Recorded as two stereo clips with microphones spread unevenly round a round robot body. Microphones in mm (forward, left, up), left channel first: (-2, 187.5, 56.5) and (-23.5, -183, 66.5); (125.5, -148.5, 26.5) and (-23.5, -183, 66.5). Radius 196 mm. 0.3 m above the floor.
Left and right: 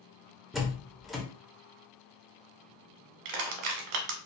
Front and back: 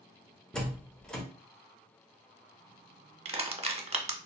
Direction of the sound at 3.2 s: 110° right.